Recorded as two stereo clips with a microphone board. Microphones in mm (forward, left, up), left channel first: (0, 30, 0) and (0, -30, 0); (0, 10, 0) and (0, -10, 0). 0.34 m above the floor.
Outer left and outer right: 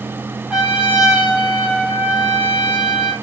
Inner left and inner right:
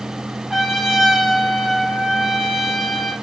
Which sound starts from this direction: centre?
A trumpet, at 0.5 s.